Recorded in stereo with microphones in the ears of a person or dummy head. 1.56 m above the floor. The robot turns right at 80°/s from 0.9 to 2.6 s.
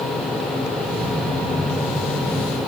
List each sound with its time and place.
Only background noise.